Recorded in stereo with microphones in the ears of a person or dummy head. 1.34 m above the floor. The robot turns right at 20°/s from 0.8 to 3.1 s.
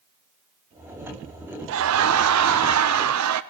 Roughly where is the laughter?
Right.